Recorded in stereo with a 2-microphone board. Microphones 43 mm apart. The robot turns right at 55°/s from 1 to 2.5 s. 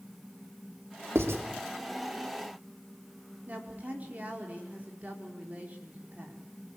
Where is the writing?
75° right (ahead or behind), 3 m; by 1.4 s 80° right, 3 m.